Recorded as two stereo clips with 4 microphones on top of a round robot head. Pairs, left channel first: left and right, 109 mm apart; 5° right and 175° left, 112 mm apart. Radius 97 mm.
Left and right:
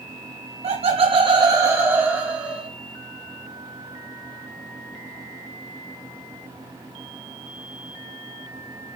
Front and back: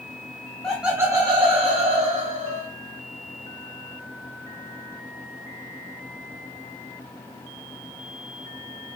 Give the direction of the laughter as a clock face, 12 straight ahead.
3 o'clock.